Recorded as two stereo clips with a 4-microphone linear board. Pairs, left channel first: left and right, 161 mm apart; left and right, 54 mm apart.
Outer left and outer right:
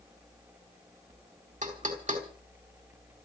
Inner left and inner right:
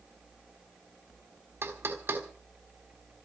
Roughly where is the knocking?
Right.